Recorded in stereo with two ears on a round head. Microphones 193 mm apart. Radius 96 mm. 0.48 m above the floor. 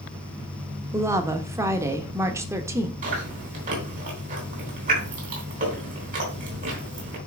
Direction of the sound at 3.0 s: 40° right (ahead or behind).